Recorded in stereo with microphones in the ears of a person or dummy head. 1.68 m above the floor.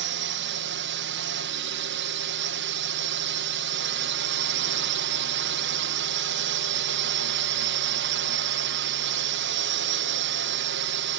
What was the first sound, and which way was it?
A drone, 60° right (ahead or behind).